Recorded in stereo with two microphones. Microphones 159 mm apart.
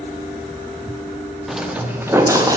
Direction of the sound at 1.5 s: Centre (ahead or behind).